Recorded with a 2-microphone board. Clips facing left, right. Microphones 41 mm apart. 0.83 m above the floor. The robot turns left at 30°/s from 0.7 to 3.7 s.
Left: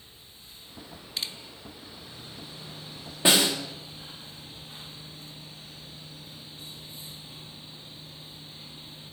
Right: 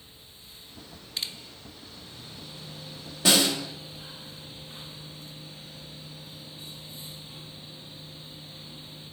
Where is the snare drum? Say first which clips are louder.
Even; 25° left (ahead or behind), 1.9 m; by 3.5 s 35° left (ahead or behind), 1.9 m.